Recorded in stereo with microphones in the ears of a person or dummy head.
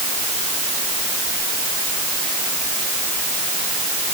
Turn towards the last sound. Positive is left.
No sound to turn to.